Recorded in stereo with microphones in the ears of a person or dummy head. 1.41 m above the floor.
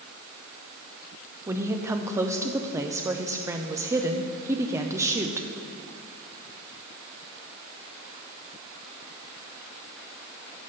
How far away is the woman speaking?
About 0.6 m.